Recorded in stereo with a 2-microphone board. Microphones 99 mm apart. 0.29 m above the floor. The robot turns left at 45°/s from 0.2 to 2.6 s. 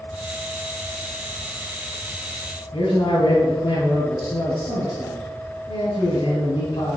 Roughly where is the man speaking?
Left.